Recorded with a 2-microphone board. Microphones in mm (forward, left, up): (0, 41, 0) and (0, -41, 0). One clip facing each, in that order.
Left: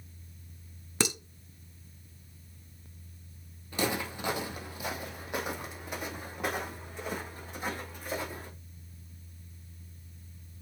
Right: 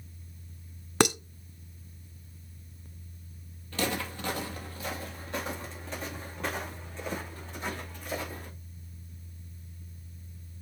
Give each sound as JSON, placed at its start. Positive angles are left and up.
{"t": 1.0, "sound": "dishes clattering", "side_deg": -60, "distance_m": 0.6}
{"t": 3.7, "sound": "footsteps", "side_deg": 15, "distance_m": 1.6}